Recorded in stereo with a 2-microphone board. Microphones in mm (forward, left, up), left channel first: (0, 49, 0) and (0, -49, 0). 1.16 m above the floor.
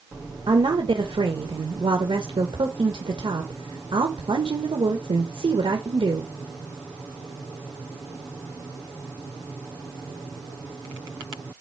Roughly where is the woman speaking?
Right.